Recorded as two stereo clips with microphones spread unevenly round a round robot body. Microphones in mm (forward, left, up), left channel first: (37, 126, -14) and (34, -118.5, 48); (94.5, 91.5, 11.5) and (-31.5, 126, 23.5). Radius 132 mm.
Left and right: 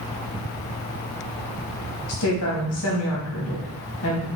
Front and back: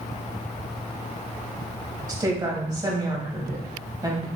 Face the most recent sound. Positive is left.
turn(degrees=105)